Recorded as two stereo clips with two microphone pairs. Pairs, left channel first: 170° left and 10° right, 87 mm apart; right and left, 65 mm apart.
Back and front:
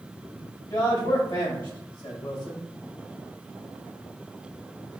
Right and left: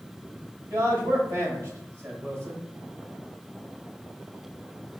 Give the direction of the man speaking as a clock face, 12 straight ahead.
7 o'clock.